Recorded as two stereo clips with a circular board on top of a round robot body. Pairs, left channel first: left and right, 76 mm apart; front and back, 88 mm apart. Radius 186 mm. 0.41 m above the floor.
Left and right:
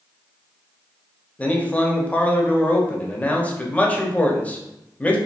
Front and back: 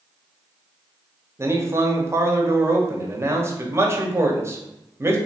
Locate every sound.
1.4 s a man speaking: 145° left, 1.1 m